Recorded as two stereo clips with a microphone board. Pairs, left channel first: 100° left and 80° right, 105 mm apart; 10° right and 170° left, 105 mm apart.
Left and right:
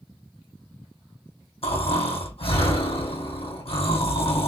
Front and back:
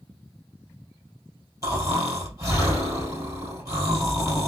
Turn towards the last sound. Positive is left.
turn(degrees=110)